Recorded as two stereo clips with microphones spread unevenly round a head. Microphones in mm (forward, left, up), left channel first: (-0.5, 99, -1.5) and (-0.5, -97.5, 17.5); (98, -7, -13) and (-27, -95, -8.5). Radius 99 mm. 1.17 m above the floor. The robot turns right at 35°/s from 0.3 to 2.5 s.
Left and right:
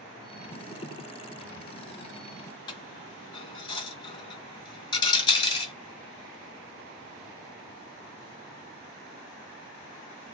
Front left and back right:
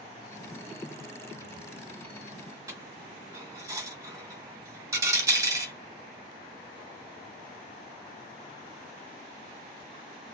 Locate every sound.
2.7 s a dropped coin: 155° left, 1.3 m